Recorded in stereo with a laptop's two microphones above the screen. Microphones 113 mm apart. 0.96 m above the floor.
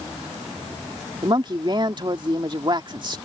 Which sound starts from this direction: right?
A woman speaking, at 1.2 s.